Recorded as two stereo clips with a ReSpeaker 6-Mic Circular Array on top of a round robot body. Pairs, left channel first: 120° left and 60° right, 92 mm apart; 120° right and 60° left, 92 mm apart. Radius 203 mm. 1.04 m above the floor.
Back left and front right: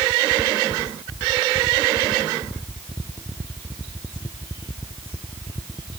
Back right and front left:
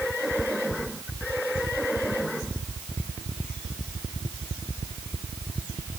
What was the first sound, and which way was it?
Only background noise.